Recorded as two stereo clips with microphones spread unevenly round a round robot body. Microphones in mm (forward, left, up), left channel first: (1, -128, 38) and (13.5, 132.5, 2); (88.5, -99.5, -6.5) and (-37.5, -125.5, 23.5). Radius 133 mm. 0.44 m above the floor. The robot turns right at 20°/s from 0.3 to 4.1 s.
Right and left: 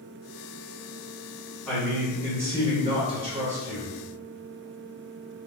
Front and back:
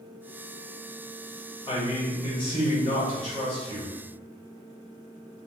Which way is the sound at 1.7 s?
5° left.